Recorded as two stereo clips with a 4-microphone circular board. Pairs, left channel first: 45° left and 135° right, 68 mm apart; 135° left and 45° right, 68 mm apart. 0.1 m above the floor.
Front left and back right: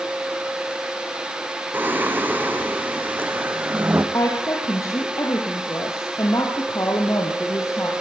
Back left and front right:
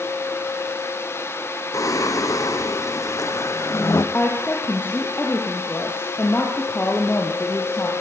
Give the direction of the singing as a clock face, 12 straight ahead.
7 o'clock.